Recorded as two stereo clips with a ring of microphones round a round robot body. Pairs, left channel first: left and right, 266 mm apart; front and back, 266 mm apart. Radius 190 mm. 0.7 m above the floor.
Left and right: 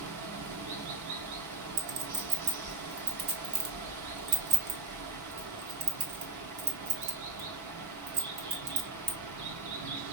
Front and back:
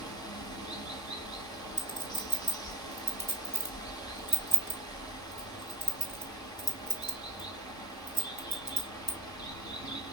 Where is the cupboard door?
I don't hear a cupboard door.